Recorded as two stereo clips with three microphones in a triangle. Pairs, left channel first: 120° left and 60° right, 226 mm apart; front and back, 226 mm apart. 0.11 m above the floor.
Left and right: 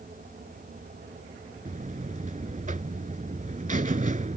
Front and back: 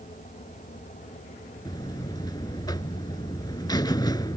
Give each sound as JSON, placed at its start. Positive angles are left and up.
{"t": 1.6, "sound": "a buzzer", "azimuth_deg": -60}